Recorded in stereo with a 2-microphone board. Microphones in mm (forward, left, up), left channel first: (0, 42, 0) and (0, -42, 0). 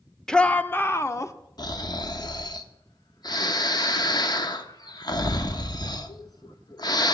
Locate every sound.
0.3 s a shout: 5° left (ahead or behind), 0.7 m; by 1.3 s 40° left (ahead or behind), 1.2 m
1.6 s snoring: 55° left (ahead or behind), 1.0 m